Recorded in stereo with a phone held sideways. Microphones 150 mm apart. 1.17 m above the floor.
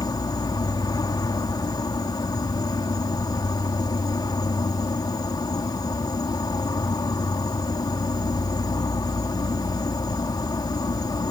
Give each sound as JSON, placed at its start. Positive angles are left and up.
{"t": 0.0, "sound": "an insect", "side_deg": 25}